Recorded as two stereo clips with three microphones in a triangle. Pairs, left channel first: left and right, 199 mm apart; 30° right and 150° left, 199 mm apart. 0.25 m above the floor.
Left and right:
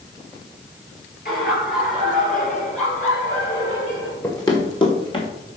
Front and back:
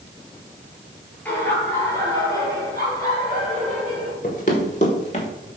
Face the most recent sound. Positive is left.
turn(degrees=25)